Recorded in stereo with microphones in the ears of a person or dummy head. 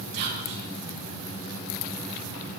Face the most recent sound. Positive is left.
turn(degrees=-60)  # may be behind; listen again after turning